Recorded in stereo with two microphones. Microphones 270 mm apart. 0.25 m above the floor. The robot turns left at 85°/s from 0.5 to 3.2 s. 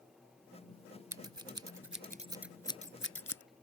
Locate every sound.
1.1 s scissors: 60° right (ahead or behind); by 3.4 s 60° left (ahead or behind)